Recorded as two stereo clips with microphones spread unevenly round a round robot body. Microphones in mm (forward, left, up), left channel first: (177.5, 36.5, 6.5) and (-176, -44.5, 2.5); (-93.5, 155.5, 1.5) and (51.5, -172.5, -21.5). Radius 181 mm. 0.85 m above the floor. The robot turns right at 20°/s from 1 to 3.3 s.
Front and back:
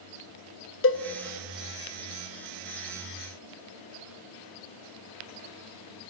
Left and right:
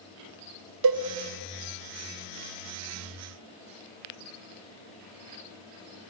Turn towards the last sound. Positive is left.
turn(degrees=10)